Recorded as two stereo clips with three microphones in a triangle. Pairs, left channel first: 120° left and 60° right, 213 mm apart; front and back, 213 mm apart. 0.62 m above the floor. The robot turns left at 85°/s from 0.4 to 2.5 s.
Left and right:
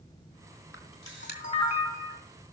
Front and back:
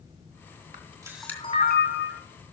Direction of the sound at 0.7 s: 130° left.